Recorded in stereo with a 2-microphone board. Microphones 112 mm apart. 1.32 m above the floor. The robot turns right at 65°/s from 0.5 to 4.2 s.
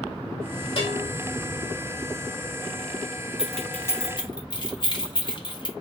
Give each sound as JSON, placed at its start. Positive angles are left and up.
{"t": 0.8, "sound": "a bell", "side_deg": 55, "distance_m": 1.5}
{"t": 3.4, "sound": "keys jangling", "side_deg": -5, "distance_m": 0.9}